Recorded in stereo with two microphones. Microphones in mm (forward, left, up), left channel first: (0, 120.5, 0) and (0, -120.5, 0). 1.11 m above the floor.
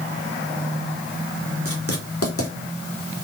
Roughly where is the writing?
Left.